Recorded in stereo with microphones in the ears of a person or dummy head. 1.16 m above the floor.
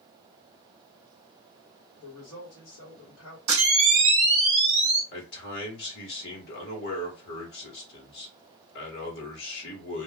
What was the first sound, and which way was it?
A woman speaking, 70° left (ahead or behind).